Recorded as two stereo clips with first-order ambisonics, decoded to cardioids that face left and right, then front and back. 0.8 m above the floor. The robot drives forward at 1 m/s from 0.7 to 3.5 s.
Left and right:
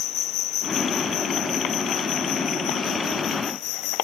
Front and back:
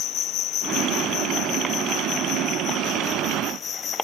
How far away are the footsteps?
No footsteps in this recording.